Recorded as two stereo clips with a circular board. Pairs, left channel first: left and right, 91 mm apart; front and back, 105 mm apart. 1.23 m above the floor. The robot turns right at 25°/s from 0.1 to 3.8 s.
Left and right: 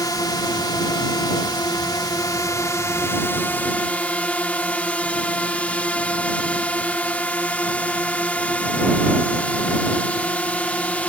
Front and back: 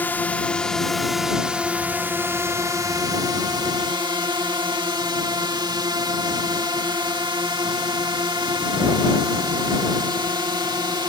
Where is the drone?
65° left; by 11.1 s 160° left.